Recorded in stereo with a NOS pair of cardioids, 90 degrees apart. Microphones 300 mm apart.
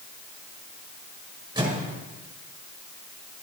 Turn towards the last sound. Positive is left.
turn(degrees=-15)